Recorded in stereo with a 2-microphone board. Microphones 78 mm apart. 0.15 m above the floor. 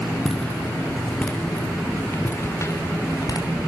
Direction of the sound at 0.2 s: 5° left (ahead or behind).